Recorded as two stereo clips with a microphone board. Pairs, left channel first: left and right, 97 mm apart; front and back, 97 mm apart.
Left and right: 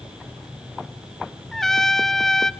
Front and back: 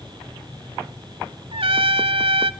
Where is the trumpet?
175° left, 0.5 m.